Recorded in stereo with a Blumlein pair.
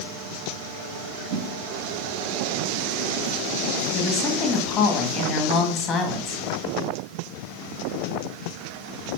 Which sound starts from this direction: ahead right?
A whoosh, at 1.3 s.